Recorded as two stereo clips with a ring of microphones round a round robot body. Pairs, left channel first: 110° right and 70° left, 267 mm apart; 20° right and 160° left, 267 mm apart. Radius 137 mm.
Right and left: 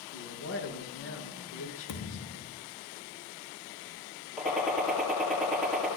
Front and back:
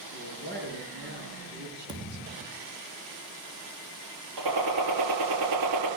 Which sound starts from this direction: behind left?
A gunshot, at 4.4 s.